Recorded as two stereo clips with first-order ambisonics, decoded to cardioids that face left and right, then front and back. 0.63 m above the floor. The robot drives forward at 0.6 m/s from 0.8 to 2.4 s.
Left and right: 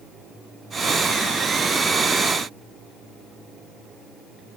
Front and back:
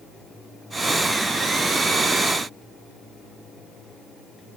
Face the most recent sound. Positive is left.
No sound to turn to.